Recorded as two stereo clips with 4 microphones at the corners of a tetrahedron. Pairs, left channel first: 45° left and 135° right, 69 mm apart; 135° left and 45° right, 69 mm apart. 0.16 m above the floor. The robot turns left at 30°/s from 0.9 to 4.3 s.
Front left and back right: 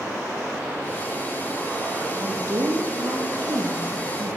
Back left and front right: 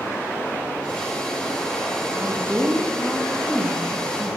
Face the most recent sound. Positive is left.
turn(degrees=-165)